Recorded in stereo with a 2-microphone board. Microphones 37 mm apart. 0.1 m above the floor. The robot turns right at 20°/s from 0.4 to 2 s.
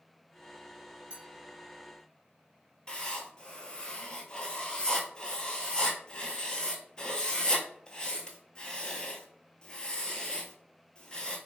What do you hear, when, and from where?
1.1 s a clink: 25° right (ahead or behind), 0.8 m
2.9 s writing: 20° left (ahead or behind), 0.7 m